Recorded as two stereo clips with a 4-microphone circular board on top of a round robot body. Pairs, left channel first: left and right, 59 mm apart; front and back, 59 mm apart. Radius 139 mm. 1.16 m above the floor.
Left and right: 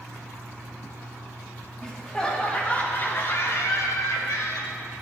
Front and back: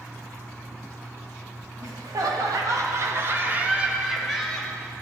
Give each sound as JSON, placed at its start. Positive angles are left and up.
{"t": 1.8, "sound": "laughter", "azimuth_deg": 175, "distance_m": 1.3}